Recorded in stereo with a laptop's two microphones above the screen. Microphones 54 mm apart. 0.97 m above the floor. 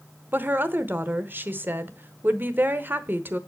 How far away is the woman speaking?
About 1.0 m.